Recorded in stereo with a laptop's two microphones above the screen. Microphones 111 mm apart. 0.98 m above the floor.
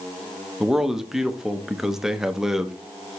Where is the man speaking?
5° right (ahead or behind), 0.5 m.